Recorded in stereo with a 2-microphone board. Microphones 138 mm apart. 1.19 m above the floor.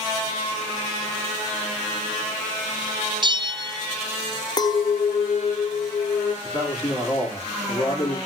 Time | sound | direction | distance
3.2 | a bell | 35° right (ahead or behind) | 0.5 m
4.6 | a clink | 30° left (ahead or behind) | 0.7 m
6.4 | a man speaking | 25° left (ahead or behind) | 3.5 m